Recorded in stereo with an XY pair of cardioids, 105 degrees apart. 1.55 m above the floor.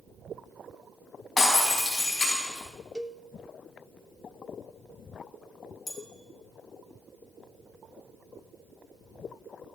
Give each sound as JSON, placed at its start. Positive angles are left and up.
{"t": 1.4, "sound": "breaking glass", "azimuth_deg": 30, "distance_m": 5.5}
{"t": 3.0, "sound": "a cowbell", "azimuth_deg": 0, "distance_m": 0.8}
{"t": 5.9, "sound": "a bell", "azimuth_deg": 25, "distance_m": 2.5}